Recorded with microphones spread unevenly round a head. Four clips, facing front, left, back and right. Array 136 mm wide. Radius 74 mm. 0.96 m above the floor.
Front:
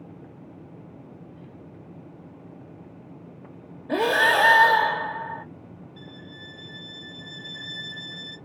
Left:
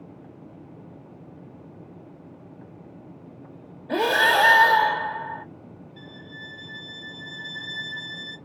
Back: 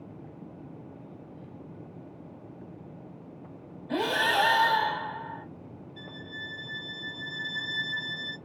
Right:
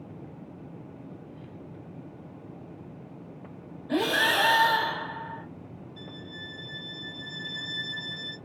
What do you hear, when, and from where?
3.9 s breathing: 15° left, 1.1 m
6.0 s a violin: 150° left, 1.1 m